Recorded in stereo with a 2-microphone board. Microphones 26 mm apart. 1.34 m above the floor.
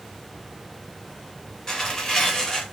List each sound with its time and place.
1.7 s tearing paper: 20° left (ahead or behind), 1.2 m